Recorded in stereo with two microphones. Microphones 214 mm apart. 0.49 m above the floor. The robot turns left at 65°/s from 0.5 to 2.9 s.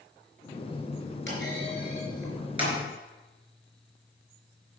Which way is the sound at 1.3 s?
60° left (ahead or behind).